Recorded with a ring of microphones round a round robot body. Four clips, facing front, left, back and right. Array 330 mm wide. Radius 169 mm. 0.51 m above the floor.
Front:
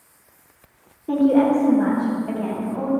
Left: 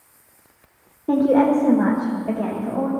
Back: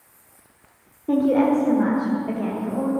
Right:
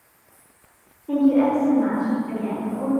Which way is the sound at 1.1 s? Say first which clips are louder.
Left 2 dB, front 2 dB; 95° left.